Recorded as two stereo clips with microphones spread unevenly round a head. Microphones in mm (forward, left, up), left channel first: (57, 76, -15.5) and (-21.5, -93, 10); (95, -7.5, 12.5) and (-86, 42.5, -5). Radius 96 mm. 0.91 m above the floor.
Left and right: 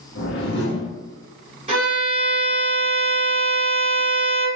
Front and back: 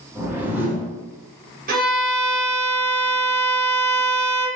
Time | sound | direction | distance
0.1 | a whoosh | 90° left | 1.1 m
1.7 | a violin | 175° right | 1.1 m